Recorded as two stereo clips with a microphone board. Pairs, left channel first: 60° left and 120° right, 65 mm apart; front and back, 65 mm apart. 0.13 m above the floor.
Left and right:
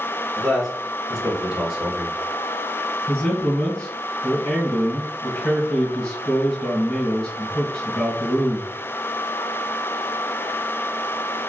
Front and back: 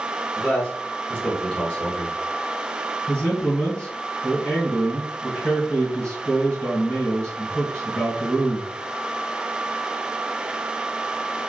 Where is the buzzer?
I don't hear a buzzer.